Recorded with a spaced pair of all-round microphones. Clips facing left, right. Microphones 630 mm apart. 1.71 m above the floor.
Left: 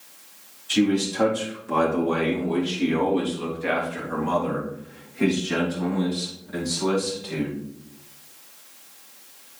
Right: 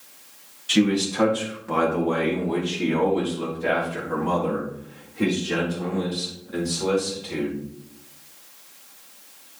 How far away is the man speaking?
About 2.5 m.